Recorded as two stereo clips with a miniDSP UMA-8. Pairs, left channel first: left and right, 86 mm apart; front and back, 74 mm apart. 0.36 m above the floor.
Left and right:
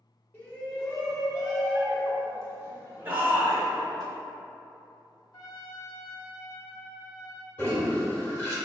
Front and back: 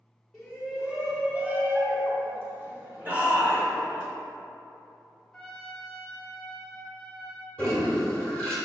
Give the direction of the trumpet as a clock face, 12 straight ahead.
9 o'clock.